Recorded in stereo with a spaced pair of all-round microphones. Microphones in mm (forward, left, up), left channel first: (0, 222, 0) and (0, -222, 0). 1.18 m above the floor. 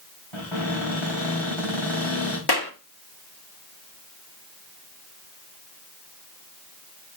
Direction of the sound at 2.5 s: 55° left (ahead or behind).